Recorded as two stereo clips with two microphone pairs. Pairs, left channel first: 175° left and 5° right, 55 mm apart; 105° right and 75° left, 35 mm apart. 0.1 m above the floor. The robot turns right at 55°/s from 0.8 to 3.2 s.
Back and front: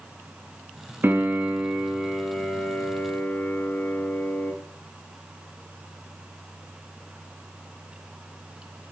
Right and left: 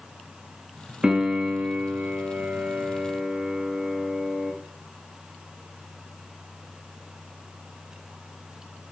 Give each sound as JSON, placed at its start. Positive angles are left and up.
{"t": 1.0, "sound": "a piano", "azimuth_deg": 20, "distance_m": 1.5}